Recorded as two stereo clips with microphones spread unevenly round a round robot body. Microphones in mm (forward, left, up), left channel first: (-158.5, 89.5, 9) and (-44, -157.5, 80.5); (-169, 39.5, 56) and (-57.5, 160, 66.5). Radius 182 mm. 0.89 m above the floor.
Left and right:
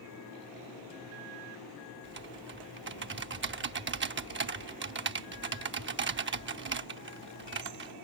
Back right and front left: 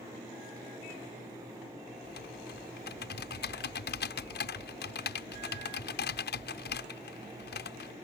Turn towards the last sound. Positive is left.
turn(degrees=-115)